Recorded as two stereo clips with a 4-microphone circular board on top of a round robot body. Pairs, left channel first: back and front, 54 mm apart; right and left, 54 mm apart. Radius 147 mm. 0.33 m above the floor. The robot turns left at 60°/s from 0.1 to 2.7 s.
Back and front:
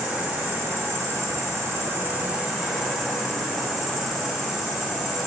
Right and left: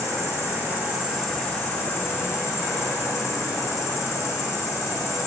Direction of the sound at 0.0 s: 70° left.